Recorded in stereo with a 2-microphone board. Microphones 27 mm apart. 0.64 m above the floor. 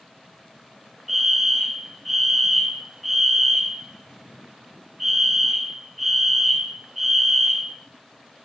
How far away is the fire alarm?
About 1.9 m.